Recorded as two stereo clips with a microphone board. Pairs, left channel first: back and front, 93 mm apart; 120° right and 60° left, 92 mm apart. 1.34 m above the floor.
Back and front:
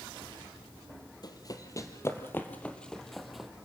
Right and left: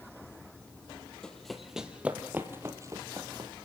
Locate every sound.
1.2 s running footsteps: 160° left, 2.0 m; by 3.5 s 85° left, 2 m